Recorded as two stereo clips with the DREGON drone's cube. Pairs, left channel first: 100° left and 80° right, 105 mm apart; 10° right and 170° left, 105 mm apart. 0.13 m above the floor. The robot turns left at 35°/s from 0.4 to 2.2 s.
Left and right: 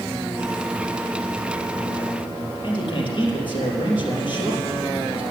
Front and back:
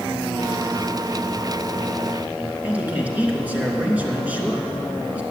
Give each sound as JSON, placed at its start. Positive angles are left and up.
{"t": 2.6, "sound": "a man speaking", "azimuth_deg": 100, "distance_m": 2.5}